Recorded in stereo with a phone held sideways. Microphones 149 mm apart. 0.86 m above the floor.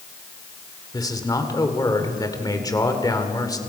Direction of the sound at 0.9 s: 25° left (ahead or behind).